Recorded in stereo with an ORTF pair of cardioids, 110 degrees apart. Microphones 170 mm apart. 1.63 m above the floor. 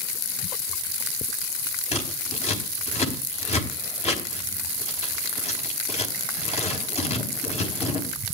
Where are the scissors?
40° left, 4.5 m.